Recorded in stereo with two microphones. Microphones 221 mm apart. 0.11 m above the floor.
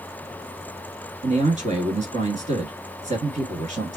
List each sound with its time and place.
1.2 s a man speaking: 35° right (ahead or behind), 1.3 m